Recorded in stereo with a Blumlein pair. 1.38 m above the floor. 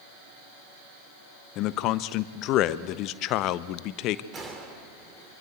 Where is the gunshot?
20° right, 3.5 m.